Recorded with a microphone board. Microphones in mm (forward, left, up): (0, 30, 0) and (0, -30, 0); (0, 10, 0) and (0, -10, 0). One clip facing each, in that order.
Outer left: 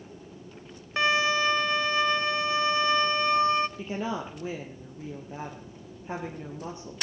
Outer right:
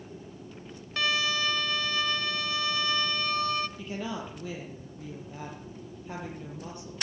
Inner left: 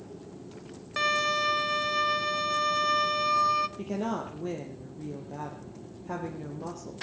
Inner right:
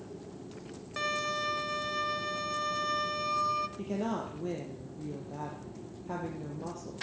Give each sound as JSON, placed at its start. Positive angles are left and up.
{"t": 1.0, "sound": "a violin", "side_deg": 30, "distance_m": 0.9}
{"t": 3.8, "sound": "a woman speaking", "side_deg": 20, "distance_m": 3.5}